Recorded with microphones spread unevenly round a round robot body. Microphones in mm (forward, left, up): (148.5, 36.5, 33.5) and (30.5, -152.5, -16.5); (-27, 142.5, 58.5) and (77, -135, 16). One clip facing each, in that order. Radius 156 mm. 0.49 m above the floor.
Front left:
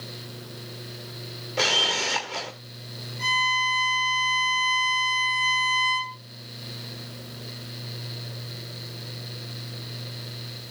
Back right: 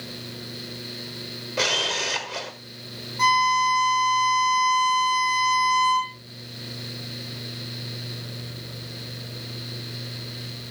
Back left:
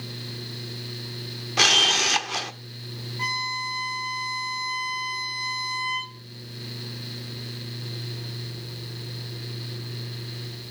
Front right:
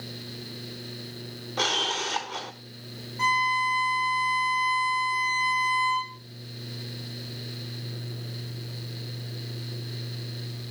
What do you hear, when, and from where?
1.6 s a camera shutter: 155° left, 1.3 m
3.2 s a violin: 130° right, 6 m